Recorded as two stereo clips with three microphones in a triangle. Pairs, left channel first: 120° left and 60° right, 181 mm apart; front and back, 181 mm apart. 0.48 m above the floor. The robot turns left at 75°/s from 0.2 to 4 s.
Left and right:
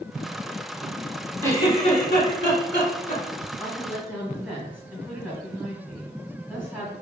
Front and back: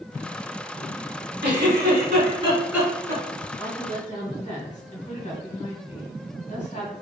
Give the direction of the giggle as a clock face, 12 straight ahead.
5 o'clock.